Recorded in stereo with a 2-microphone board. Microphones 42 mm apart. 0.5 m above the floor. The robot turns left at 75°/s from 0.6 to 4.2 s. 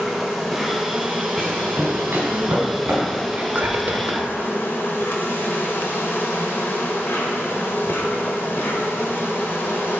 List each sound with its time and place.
0.0 s an insect: 5° right, 1.4 m; by 10.0 s 85° left, 1.4 m
1.4 s running footsteps: centre (ahead or behind), 3 m; by 3.2 s 30° right (ahead or behind), 5 m
3.3 s whispering: 40° right, 1.2 m; by 4.3 s 105° right, 1.2 m